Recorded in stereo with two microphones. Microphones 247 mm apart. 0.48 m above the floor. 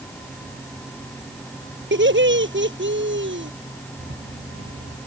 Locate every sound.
1.9 s laughter: 55° right (ahead or behind)
4.0 s a rattle: 85° right